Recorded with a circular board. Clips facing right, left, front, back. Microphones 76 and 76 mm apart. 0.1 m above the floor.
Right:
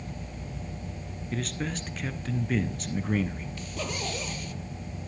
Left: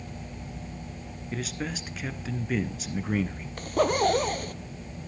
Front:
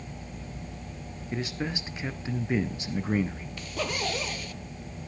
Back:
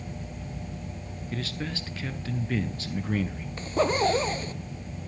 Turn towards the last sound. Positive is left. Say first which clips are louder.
# left 14 dB, back 9 dB
turn(degrees=125)